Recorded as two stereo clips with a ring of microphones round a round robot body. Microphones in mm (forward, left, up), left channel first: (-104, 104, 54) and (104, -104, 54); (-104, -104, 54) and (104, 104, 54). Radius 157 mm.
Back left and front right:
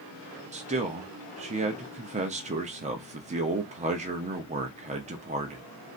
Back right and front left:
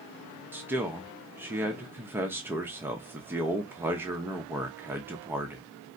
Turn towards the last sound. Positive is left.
turn(degrees=-30)